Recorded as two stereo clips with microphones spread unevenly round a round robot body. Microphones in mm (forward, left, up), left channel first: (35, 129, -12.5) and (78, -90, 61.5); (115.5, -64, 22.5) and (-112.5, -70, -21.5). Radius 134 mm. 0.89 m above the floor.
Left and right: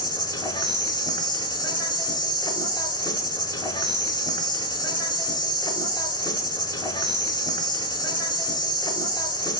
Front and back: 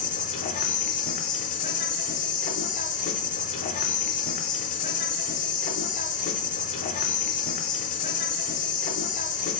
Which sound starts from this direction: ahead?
An insect, at 0.0 s.